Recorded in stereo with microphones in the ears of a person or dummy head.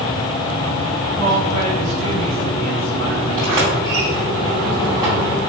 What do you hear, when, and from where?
1.2 s a woman speaking: 65° right (ahead or behind), 3 m; by 3.5 s 35° right (ahead or behind), 2.5 m
3.4 s a sliding door: 15° right (ahead or behind), 2.5 m